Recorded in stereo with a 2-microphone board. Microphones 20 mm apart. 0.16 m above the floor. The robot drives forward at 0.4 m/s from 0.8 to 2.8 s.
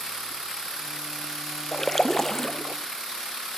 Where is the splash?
25° left (ahead or behind), 0.9 m; by 2.8 s 15° left (ahead or behind), 1.3 m.